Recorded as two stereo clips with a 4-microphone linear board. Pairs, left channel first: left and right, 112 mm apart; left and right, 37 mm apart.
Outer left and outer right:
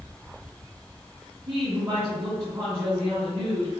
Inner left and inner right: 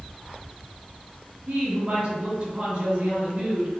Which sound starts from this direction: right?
A woman speaking, at 1.5 s.